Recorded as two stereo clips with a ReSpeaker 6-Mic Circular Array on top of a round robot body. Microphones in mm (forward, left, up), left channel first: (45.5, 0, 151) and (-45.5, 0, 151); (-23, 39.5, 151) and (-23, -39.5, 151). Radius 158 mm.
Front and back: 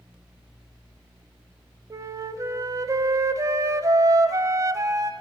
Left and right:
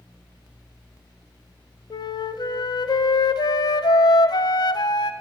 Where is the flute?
120° left, 0.8 m.